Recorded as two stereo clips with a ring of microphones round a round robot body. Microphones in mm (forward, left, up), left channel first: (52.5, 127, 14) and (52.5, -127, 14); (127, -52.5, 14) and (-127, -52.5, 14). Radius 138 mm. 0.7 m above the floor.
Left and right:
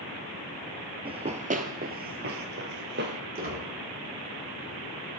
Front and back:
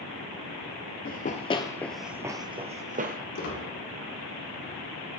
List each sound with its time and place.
1.1 s running footsteps: 30° right, 0.8 m; by 3.2 s 135° right, 1.1 m
3.4 s a squeak: 40° right, 5 m